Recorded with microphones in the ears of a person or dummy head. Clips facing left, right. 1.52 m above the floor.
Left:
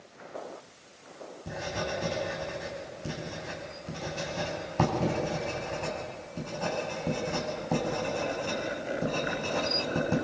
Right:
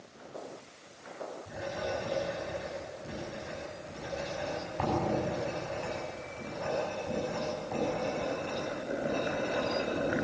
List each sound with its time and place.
1.5 s writing: 55° left (ahead or behind), 7.5 m